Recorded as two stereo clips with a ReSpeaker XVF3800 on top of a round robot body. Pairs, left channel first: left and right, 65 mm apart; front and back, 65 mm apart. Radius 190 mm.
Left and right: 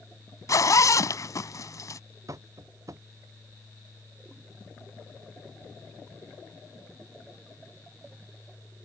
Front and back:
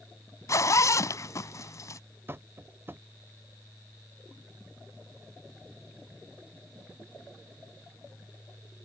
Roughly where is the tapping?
Behind right.